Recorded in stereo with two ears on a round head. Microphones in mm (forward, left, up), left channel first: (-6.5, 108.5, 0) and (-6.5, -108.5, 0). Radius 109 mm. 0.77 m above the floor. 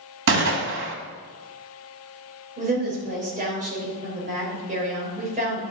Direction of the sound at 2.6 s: 35° right (ahead or behind).